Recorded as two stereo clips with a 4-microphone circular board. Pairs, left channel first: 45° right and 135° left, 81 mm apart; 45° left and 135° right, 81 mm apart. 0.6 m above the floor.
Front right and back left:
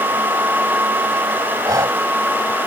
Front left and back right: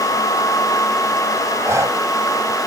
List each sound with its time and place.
1.6 s breathing: 175° left